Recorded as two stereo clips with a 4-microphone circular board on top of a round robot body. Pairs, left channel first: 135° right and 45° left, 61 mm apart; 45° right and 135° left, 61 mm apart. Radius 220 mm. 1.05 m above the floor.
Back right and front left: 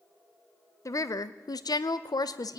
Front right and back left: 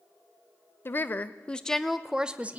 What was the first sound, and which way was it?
A woman speaking, 100° right.